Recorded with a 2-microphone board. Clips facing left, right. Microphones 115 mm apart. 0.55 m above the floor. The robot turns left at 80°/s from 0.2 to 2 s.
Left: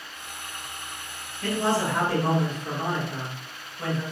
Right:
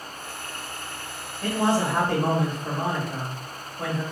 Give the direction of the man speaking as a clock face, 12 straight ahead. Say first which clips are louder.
Right 2 dB; 2 o'clock.